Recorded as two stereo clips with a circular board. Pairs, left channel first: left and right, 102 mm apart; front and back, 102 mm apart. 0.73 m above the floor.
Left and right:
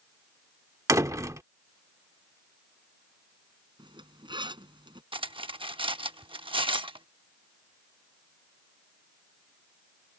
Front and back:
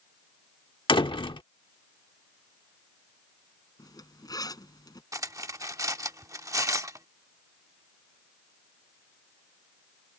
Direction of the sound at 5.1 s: 125° right.